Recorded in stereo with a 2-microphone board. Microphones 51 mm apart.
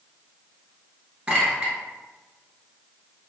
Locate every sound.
1.3 s a clink: 20° right (ahead or behind), 1.6 m